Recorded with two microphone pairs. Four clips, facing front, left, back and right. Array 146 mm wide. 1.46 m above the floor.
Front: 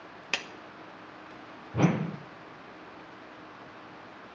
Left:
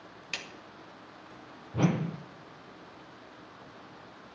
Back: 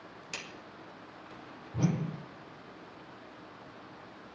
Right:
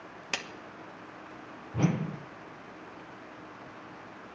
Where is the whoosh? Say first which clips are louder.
Left 1 dB, front 6 dB; 15° left, 0.6 m.